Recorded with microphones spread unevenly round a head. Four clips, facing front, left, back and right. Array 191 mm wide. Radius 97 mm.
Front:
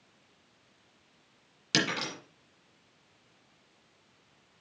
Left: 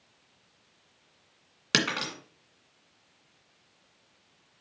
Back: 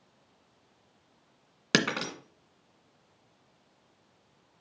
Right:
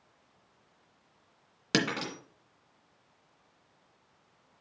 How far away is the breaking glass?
About 1.8 m.